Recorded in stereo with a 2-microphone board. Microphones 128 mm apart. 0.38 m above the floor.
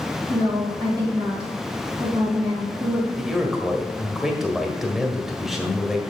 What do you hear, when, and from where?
0.3 s a woman speaking: 30° right (ahead or behind), 3 m
3.2 s a man speaking: 5° right (ahead or behind), 1.6 m